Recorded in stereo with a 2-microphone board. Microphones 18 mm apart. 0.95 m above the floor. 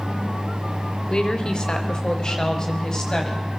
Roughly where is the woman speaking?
Left.